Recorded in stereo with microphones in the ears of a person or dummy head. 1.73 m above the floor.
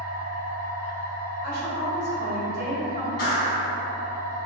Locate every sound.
0.0 s a machine running: 5° left (ahead or behind), 1.3 m
1.4 s a woman speaking: 55° left (ahead or behind), 1.6 m
3.2 s a clap: 50° left (ahead or behind), 1.3 m